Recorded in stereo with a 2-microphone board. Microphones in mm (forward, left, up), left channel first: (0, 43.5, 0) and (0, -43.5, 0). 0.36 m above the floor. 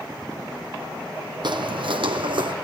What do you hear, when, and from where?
1.4 s footsteps: 60° right (ahead or behind), 0.9 m; by 2.5 s 65° right (ahead or behind), 1.2 m